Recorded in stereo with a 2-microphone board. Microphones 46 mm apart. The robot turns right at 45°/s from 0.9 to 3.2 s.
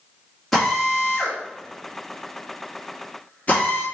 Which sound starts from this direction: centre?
A drill, at 0.5 s.